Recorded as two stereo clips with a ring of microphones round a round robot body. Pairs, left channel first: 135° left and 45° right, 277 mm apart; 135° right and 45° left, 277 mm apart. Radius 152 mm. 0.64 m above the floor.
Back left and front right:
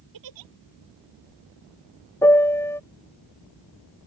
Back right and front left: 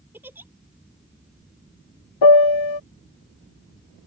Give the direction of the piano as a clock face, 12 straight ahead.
5 o'clock.